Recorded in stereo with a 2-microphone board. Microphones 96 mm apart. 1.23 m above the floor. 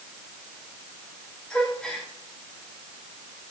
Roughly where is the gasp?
Centre.